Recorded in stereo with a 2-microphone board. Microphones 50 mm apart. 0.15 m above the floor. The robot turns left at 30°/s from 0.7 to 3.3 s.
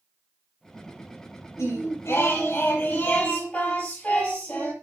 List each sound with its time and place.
1.6 s singing: 80° left, 4 m; by 4.7 s 30° left, 4 m